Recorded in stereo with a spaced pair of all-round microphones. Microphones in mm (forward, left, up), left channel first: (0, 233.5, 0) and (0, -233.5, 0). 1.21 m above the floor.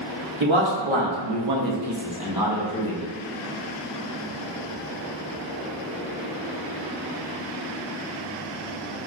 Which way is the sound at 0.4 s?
75° right (ahead or behind).